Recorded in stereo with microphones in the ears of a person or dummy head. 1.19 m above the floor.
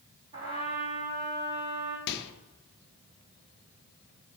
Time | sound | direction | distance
0.3 | a trumpet | 15° right (ahead or behind) | 0.8 m
2.1 | a microwave | 55° left (ahead or behind) | 0.6 m